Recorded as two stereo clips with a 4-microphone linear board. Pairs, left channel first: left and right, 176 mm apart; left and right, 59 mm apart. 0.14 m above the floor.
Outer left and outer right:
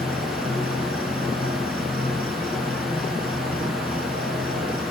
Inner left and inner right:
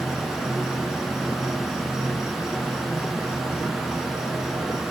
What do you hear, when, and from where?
0.0 s an insect: 60° left (ahead or behind), 1.3 m